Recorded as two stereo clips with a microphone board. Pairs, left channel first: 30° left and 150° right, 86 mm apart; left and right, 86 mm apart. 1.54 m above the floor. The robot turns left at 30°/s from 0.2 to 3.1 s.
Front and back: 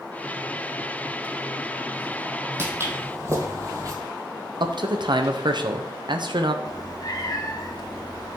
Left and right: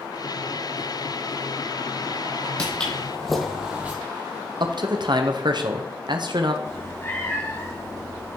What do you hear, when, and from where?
2.6 s footsteps: 165° left, 2.5 m; by 3.9 s 150° right, 2 m
4.6 s a man speaking: 120° right, 0.8 m
6.7 s a cat meowing: 40° left, 1.1 m